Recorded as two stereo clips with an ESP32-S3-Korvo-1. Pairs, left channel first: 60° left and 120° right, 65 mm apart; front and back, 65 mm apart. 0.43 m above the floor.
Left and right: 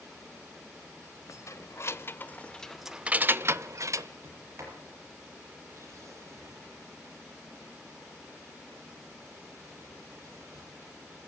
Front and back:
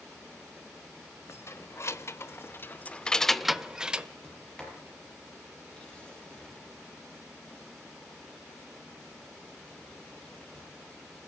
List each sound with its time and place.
1.3 s keys jangling: 35° left, 1.4 m; by 4.1 s 110° right, 1.2 m
4.2 s a sliding door: 80° right, 6.5 m